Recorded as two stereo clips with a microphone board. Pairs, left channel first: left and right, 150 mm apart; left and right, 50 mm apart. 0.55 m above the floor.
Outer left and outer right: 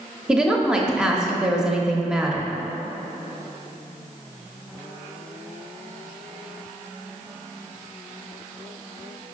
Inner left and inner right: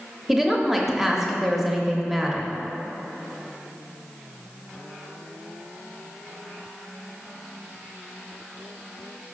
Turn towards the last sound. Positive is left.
turn(degrees=-5)  # may be behind; listen again after turning